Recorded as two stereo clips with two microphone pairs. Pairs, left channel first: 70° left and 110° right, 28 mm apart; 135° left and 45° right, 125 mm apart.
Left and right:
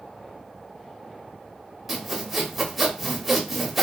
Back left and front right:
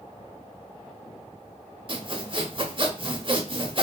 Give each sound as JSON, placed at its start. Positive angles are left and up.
{"t": 1.9, "sound": "sawing", "azimuth_deg": -20, "distance_m": 0.8}